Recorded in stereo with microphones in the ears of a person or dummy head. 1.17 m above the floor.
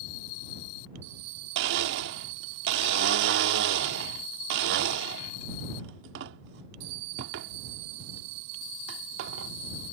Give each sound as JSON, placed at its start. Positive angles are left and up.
{"t": 1.6, "sound": "a blender", "side_deg": -60}